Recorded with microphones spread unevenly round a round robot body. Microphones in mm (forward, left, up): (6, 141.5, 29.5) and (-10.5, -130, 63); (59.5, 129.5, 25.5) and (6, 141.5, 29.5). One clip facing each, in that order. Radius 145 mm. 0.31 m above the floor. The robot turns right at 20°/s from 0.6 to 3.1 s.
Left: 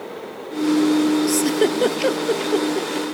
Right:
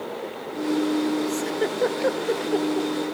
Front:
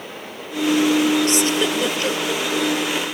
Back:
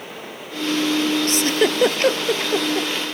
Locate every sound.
1.3 s a giggle: 115° left; by 2.9 s 150° left